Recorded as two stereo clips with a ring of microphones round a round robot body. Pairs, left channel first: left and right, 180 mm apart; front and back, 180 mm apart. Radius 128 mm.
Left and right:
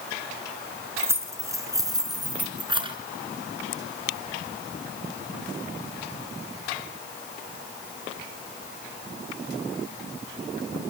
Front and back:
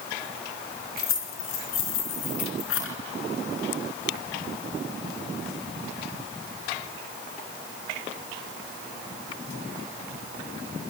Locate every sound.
1.0 s keys jangling: 15° right, 4 m; by 3.0 s 30° right, 4 m